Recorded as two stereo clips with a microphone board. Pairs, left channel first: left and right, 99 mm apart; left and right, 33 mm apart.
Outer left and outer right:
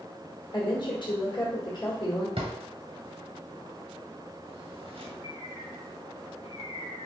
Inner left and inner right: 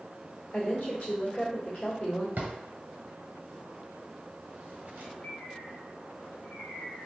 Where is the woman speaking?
50° left (ahead or behind), 1.6 m.